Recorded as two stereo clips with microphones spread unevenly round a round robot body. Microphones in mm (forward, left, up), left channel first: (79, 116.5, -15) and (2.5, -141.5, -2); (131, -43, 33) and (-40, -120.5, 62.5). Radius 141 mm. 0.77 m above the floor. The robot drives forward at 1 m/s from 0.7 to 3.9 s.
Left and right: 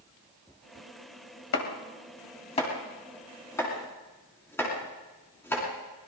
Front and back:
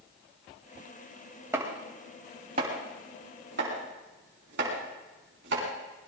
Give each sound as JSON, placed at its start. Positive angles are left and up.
{"t": 1.5, "sound": "chopping", "azimuth_deg": 125, "distance_m": 1.8}